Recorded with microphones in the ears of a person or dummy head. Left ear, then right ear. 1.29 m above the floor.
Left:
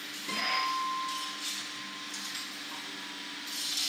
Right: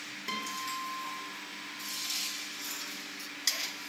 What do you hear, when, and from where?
0.3 s a guitar: 70° right (ahead or behind), 1.3 m